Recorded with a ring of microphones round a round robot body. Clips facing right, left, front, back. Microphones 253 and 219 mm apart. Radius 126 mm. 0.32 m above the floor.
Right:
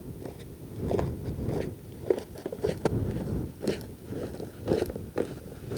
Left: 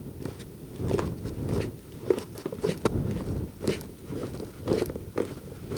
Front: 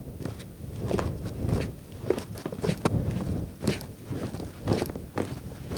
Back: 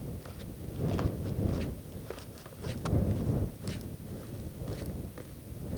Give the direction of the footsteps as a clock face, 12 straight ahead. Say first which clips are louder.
Left 2 dB, front 6 dB; 11 o'clock.